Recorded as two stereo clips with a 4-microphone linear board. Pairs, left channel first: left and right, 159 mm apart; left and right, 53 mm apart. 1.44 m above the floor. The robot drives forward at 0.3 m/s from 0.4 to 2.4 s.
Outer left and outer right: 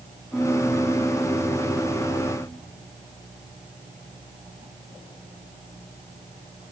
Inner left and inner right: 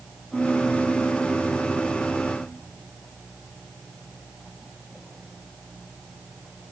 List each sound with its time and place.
0.3 s a piano: centre (ahead or behind)